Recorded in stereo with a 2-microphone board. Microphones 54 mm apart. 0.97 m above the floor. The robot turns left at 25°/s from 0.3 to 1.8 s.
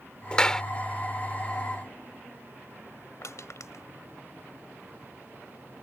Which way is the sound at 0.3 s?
20° left (ahead or behind).